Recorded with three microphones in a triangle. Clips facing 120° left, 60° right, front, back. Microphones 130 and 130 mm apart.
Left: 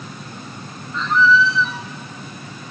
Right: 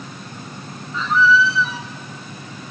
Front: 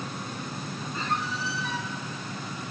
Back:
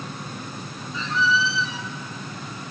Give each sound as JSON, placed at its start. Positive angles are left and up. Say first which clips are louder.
{"t": 0.9, "sound": "a squeak", "louder": "even, back 8 dB", "azimuth_deg": 30, "distance_m": 1.2}